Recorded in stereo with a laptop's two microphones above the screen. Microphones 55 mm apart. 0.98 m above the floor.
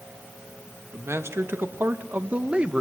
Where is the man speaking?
55° right (ahead or behind), 1.5 m; by 2.8 s 15° right (ahead or behind), 0.9 m.